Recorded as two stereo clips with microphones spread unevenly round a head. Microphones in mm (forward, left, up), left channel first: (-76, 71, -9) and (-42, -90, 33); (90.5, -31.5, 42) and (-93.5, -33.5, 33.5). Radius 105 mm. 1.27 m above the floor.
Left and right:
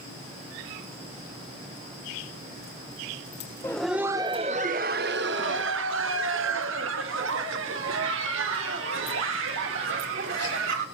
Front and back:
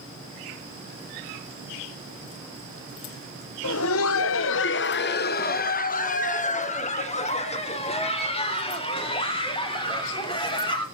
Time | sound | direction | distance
3.6 | laughter | 25° left | 0.6 m